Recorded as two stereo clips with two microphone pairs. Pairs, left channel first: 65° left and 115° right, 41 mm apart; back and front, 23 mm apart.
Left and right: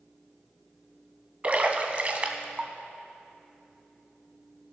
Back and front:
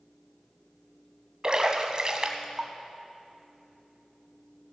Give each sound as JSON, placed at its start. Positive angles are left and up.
{"t": 1.4, "sound": "a splash", "azimuth_deg": -60, "distance_m": 1.0}